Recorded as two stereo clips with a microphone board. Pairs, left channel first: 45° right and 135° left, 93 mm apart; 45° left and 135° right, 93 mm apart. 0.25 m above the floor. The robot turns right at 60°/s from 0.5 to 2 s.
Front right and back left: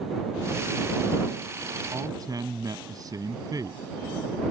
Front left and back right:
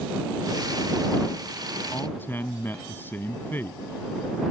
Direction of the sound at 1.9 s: 100° left.